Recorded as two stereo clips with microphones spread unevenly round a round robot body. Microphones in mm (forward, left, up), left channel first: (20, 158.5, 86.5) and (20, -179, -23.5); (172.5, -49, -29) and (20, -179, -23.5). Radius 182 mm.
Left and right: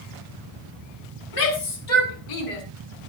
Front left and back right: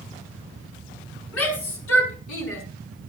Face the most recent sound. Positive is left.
turn(degrees=70)